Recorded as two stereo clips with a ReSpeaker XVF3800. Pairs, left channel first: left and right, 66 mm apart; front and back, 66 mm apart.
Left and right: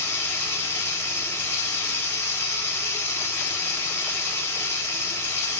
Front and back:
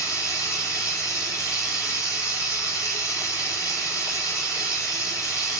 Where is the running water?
35° left, 1.6 m.